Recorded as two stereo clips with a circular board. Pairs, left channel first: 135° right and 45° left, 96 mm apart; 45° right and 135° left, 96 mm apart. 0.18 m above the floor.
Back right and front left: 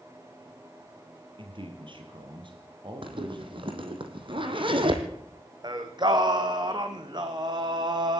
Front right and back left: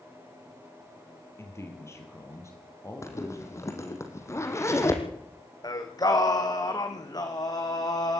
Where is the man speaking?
15° left, 4.5 m; by 4.0 s 10° left, 5.5 m.